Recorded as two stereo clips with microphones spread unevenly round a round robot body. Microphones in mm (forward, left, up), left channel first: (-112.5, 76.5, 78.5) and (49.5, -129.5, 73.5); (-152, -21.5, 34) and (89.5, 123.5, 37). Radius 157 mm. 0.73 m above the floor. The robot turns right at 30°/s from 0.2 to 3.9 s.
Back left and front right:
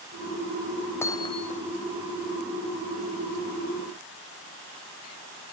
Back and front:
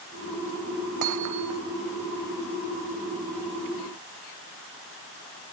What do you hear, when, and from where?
1.0 s hammering: 45° left; by 1.6 s 65° left